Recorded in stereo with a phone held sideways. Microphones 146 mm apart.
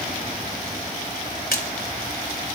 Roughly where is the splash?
Left.